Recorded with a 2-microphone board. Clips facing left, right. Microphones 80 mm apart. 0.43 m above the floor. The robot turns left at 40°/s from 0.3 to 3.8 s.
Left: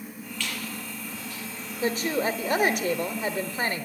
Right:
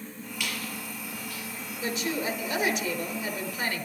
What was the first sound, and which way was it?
A squeak, 15° right (ahead or behind).